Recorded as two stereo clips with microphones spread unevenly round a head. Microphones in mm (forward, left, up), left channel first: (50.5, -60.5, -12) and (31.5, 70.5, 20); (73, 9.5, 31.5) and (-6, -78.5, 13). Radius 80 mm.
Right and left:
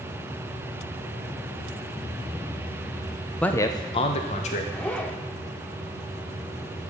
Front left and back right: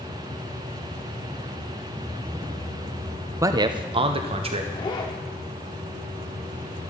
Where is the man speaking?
135° right, 0.7 m; by 4.6 s 110° right, 1.6 m.